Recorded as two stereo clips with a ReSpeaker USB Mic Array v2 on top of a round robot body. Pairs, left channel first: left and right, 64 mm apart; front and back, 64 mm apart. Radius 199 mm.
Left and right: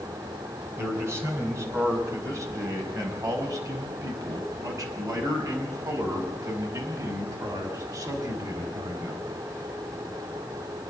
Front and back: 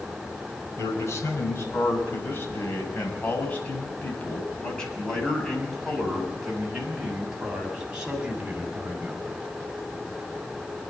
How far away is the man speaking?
About 7 m.